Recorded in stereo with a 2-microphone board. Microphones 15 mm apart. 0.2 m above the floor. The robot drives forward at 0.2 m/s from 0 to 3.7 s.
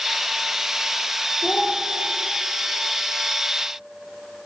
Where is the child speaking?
60° left (ahead or behind), 3 m.